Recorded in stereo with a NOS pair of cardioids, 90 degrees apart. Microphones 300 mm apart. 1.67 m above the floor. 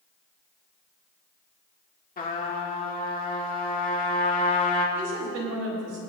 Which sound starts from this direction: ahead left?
A trumpet, at 2.2 s.